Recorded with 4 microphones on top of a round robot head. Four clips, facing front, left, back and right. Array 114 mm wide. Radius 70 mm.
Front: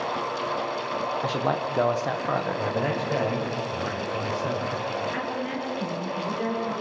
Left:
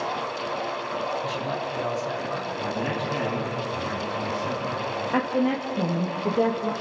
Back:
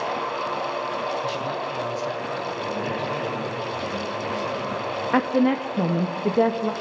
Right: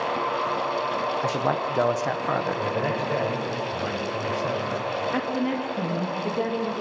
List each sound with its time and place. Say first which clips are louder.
1.2 s a man speaking: right 4 dB, front 1 dB; 55° right, 1.7 m
2.6 s a man speaking: right 2 dB, front 1 dB; 50° right, 7.5 m
5.1 s a woman speaking: left 6 dB, back 9 dB; 170° left, 1.3 m